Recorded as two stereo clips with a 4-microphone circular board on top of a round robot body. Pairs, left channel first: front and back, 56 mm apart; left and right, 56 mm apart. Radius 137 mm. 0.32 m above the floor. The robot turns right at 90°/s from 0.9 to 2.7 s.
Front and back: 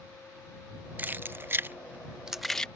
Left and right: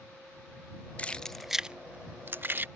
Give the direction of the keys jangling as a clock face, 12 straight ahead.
7 o'clock.